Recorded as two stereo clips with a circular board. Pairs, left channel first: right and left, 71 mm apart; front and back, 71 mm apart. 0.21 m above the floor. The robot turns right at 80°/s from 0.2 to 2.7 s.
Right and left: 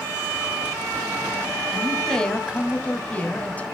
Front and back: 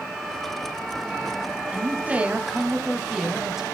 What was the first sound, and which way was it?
A man speaking, 175° left.